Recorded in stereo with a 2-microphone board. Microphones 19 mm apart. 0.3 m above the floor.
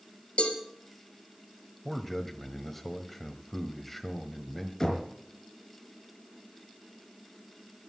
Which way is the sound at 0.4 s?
80° left.